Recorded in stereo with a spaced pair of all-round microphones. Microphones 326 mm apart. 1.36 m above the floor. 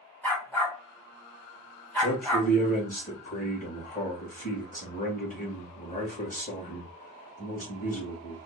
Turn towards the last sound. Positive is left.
turn(degrees=25)  # may be behind; listen again after turning